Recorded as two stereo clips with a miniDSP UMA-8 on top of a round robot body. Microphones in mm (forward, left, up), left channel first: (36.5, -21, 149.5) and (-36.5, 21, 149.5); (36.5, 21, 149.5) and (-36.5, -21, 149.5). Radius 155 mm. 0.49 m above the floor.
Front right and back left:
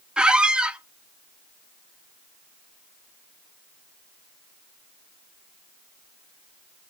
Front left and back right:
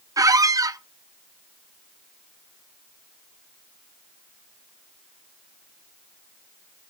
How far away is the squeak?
About 0.6 m.